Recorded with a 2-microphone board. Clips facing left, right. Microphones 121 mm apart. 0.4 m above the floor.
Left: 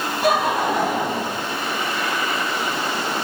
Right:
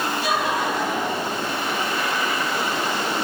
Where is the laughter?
50° left (ahead or behind), 3 m; by 1.4 s 55° left (ahead or behind), 3.5 m.